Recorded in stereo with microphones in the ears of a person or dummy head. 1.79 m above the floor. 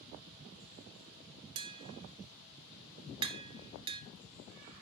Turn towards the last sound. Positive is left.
turn(degrees=-25)  # may be behind; listen again after turning